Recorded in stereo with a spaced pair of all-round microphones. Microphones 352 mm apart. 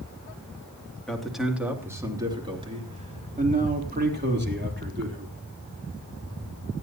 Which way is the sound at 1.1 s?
Centre (ahead or behind).